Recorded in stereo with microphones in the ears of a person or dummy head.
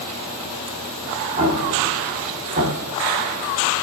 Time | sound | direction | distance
1.4 | an explosion | 40° right (ahead or behind) | 2 m